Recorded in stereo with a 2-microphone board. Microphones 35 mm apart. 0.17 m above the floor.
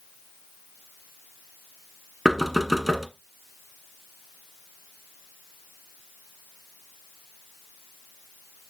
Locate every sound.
2.2 s knocking: 10° right (ahead or behind), 1.1 m